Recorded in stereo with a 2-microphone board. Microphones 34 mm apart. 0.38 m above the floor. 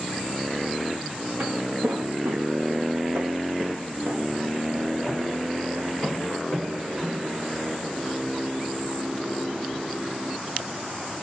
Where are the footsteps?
50° right (ahead or behind), 1.8 m; by 8.0 s 10° right (ahead or behind), 6 m.